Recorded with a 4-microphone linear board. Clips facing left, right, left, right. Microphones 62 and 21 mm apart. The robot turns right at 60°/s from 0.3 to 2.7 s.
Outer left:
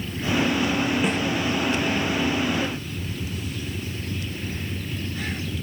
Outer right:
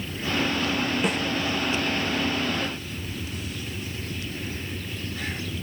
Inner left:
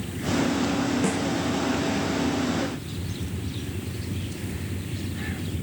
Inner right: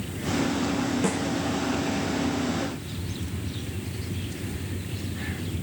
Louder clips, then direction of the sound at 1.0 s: Outer left 2 dB, inner left 1 dB; centre (ahead or behind).